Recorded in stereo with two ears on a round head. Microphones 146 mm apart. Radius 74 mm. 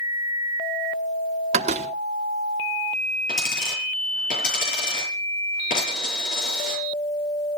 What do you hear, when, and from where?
1.5 s a door slam: 40° right (ahead or behind), 1.2 m
3.3 s a dropped coin: 50° left (ahead or behind), 9 m